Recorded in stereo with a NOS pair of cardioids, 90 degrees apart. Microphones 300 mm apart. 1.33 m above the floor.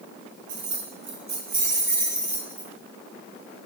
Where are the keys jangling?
60° right, 1.3 m; by 2.7 s 5° right, 1.7 m.